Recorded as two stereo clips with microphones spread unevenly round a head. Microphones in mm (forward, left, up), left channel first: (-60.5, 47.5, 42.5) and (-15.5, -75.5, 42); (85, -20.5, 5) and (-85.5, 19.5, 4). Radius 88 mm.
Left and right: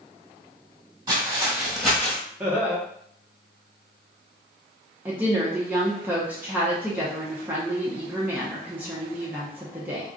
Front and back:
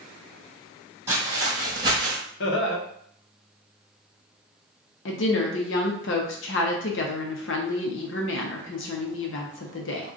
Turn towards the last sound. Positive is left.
turn(degrees=10)